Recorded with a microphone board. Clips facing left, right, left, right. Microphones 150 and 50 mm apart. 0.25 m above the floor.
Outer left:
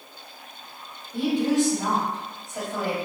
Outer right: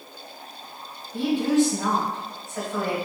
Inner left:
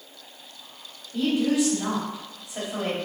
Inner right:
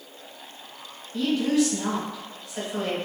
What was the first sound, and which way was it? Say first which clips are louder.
A woman speaking: outer right 1 dB, even; 20° left (ahead or behind).